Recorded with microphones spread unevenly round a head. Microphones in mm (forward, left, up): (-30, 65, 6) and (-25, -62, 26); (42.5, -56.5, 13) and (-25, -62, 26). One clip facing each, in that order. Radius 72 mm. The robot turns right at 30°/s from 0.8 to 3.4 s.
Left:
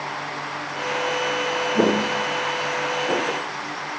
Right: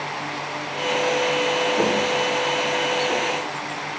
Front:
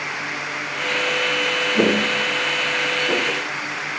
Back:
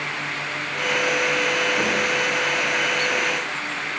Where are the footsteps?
30° left, 1.6 m; by 3.5 s 35° left, 2 m.